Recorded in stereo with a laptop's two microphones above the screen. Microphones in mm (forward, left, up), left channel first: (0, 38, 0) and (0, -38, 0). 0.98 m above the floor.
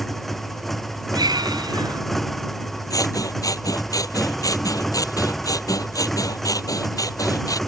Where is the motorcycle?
5° left (ahead or behind).